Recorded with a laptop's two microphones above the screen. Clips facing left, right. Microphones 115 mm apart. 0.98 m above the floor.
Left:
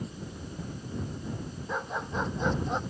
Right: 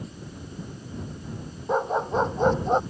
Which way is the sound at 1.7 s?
40° right (ahead or behind).